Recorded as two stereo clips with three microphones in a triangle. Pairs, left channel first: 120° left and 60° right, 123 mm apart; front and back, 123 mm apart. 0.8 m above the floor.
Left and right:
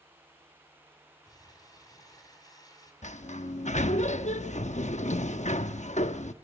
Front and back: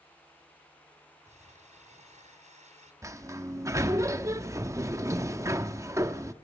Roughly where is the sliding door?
Behind left.